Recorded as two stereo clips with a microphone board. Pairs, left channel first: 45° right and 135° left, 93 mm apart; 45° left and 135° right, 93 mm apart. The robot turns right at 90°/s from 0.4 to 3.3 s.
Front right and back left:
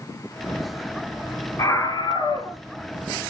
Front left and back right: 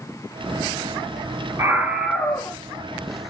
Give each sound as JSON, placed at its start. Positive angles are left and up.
{"t": 1.6, "sound": "a scream", "azimuth_deg": -90, "distance_m": 1.5}